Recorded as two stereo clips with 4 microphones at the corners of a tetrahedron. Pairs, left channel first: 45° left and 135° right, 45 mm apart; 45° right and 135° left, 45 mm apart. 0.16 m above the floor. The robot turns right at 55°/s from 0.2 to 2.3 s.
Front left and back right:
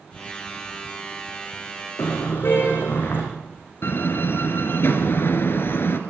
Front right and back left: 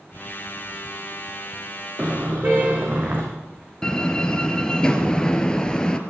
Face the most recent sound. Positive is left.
turn(degrees=25)